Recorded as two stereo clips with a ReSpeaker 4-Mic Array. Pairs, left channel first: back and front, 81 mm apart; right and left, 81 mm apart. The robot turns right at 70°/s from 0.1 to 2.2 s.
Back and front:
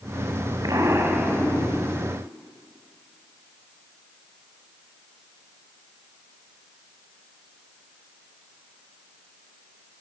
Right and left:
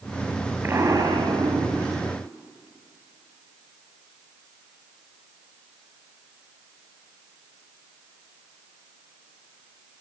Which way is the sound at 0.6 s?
30° left.